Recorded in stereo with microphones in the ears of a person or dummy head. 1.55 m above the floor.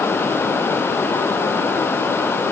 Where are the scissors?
I don't hear scissors.